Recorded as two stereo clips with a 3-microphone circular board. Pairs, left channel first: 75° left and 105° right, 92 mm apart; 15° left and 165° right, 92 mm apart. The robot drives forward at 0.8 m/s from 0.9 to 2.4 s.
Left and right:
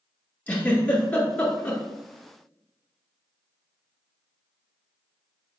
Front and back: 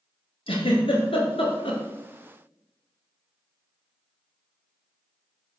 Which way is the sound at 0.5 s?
Straight ahead.